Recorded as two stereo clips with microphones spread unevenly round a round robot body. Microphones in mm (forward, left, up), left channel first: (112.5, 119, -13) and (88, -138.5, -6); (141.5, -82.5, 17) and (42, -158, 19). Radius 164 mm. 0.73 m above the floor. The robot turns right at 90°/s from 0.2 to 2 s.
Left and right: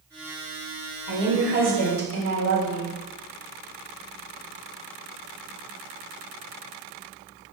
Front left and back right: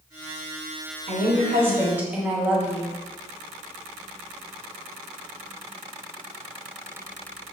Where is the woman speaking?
150° right, 1.3 m; by 3.0 s 65° right, 1.3 m.